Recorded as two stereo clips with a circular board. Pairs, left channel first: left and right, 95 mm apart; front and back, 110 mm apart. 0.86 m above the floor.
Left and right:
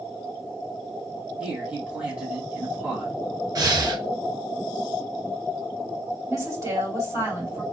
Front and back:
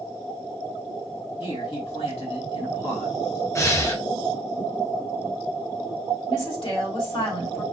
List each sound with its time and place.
1.4 s a man speaking: 15° right, 1.7 m
3.5 s breathing: 55° right, 0.6 m
6.3 s a woman speaking: 35° right, 1.7 m